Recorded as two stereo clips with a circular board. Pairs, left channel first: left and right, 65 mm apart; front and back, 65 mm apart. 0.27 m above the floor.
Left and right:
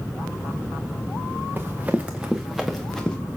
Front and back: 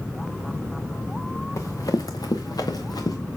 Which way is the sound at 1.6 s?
30° right.